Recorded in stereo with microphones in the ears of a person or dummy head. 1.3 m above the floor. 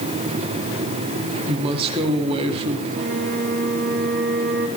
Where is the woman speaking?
30° right (ahead or behind), 2 m.